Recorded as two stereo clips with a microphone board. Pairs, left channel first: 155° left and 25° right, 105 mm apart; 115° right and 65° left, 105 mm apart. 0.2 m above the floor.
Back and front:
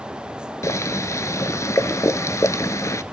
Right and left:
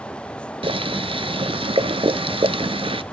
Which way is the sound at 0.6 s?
95° left.